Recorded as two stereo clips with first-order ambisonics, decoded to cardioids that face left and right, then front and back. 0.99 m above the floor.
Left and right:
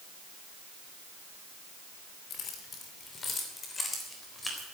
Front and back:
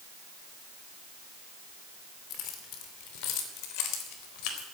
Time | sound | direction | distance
2.3 | keys jangling | 40° left | 2.5 m